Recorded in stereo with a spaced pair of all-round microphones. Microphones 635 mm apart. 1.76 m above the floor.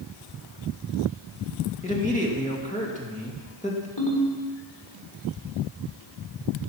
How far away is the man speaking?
About 2.5 m.